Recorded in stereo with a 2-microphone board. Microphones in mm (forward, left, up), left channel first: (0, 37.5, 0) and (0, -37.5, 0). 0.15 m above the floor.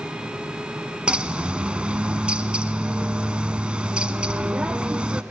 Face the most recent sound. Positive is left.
turn(degrees=-15)  # may be behind; listen again after turning